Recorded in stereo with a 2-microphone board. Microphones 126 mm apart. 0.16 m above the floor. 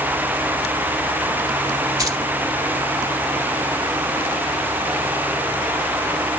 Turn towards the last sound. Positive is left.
turn(degrees=-30)  # may be behind; listen again after turning